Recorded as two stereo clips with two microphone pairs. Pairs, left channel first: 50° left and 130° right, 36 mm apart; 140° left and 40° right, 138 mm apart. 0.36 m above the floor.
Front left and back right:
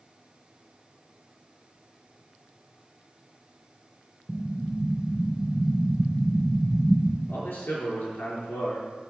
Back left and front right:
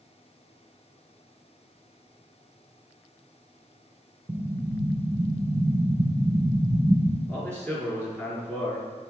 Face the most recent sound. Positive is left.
turn(degrees=60)